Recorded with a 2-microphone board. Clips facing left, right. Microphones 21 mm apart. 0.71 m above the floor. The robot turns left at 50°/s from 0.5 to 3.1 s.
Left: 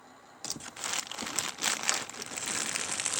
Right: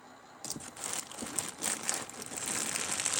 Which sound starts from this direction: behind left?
Crumpling, at 0.4 s.